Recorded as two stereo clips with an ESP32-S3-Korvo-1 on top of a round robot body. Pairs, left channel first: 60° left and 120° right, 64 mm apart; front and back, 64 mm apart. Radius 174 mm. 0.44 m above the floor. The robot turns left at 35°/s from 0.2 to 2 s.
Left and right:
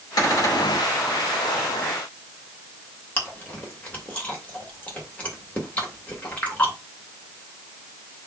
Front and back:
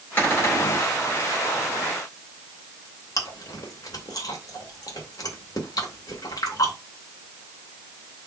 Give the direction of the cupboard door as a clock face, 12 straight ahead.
10 o'clock.